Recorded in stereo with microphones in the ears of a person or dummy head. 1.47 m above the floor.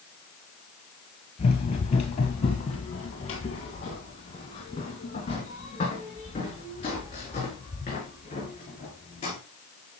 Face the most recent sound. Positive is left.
turn(degrees=30)  # may be behind; listen again after turning